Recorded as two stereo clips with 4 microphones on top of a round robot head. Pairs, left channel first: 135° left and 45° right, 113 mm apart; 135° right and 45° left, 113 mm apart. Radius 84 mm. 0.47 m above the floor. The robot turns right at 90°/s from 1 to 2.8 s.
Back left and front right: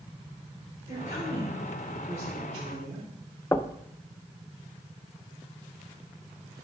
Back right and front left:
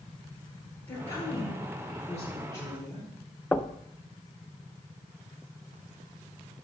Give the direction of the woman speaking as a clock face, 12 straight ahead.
7 o'clock.